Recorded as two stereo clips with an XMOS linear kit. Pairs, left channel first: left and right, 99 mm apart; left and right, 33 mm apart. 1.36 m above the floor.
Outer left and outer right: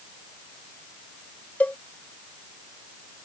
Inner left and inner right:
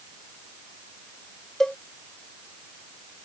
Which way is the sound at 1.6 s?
20° left (ahead or behind).